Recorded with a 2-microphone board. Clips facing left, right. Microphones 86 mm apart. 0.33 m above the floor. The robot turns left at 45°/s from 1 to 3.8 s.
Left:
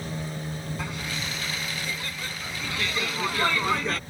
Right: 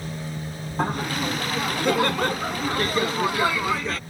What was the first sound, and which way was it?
Laughter, 55° right.